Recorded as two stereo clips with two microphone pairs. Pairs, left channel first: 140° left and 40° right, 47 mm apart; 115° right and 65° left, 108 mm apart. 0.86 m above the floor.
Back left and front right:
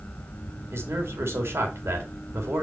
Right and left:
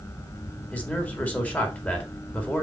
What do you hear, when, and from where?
0.7 s a man speaking: 45° right, 2 m